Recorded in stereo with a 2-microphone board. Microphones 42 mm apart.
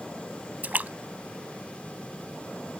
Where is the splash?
45° right (ahead or behind).